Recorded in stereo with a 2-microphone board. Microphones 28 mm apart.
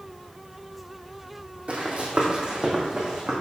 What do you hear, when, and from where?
1.7 s running footsteps: 45° right (ahead or behind), 1.6 m; by 3.3 s 20° right (ahead or behind), 2 m